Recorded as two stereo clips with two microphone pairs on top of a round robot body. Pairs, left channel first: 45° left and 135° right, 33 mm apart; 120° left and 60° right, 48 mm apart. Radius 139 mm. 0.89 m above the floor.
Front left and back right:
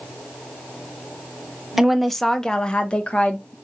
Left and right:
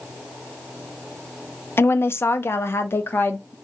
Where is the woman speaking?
135° left, 0.7 m; by 3.5 s 80° left, 1.2 m.